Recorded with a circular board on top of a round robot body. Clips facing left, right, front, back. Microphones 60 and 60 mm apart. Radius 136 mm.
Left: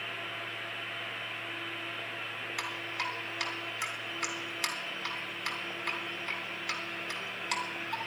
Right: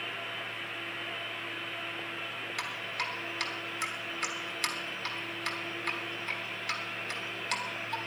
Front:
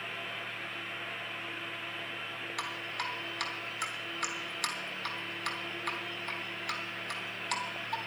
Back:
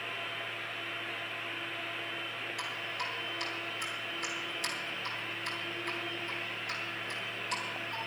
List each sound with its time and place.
2.6 s dripping: 10° left, 3 m